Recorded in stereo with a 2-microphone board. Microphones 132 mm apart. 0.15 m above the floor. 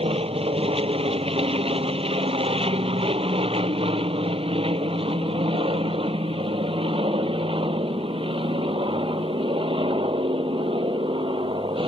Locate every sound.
0.0 s an aircraft: 45° right (ahead or behind); by 11.9 s 40° right (ahead or behind)